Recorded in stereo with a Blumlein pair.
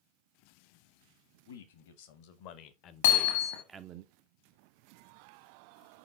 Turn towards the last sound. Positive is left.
turn(degrees=55)